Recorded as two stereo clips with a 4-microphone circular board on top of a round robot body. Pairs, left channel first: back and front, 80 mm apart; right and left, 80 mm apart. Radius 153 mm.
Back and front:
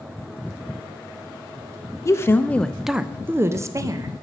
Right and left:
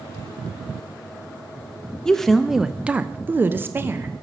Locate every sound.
2.0 s a woman speaking: 170° right, 0.7 m; by 4.1 s 35° left, 1.0 m